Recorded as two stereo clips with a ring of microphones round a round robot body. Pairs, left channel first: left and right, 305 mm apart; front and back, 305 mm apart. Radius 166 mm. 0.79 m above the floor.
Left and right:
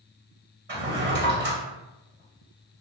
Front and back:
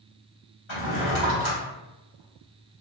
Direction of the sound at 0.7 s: 30° right.